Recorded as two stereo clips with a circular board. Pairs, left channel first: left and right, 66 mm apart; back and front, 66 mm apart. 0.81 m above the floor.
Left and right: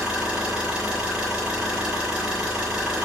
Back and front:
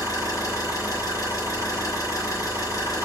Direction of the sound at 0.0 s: 160° right.